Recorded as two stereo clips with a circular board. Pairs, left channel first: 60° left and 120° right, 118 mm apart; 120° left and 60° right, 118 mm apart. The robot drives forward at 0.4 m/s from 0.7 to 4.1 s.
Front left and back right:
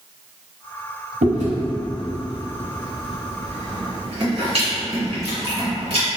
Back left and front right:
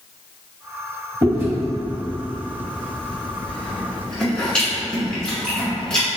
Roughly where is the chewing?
Behind right.